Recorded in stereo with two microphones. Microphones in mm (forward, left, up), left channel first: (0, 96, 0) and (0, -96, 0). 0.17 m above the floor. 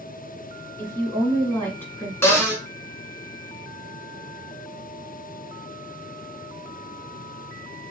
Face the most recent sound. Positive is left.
turn(degrees=15)  # may be behind; listen again after turning